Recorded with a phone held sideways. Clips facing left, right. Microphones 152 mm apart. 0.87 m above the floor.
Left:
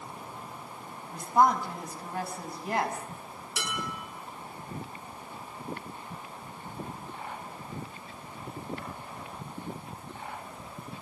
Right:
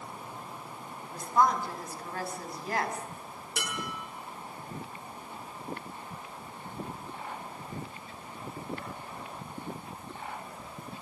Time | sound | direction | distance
1.1 | a woman speaking | 20° left (ahead or behind) | 6 m
3.6 | dishes clattering | 50° right (ahead or behind) | 10 m